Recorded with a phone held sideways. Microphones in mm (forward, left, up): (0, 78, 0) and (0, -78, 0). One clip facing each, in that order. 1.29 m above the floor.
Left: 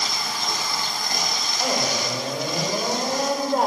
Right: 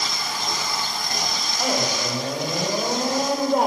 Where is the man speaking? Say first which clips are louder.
Right 1 dB; 5° right (ahead or behind), 7.5 m.